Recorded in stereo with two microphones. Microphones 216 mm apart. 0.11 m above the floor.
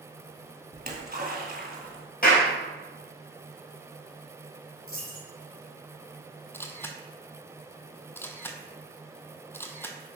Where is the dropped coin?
85° left, 3.5 m.